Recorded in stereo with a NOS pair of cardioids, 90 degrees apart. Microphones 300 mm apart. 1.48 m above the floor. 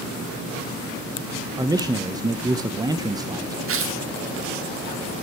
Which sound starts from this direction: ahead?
A man speaking, at 1.6 s.